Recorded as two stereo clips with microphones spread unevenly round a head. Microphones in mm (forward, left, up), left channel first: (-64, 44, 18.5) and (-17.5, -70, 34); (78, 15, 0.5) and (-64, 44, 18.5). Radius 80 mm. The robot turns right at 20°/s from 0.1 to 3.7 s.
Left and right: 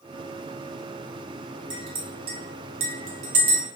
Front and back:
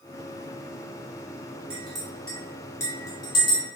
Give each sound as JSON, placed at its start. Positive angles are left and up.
{"t": 1.7, "sound": "a clink", "azimuth_deg": -110, "distance_m": 0.7}